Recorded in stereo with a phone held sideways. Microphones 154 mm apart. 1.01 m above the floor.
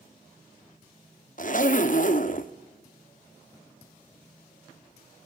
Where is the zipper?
55° left (ahead or behind), 0.9 m.